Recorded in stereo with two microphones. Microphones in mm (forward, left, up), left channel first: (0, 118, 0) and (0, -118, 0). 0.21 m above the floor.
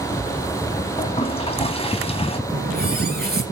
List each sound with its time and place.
1.0 s a toilet flushing: 25° left (ahead or behind), 1.2 m
2.5 s a running tap: 40° right (ahead or behind), 2.5 m